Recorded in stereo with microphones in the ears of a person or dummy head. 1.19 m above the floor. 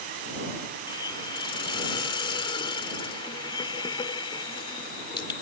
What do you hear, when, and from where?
0.9 s a hiss: 35° left (ahead or behind)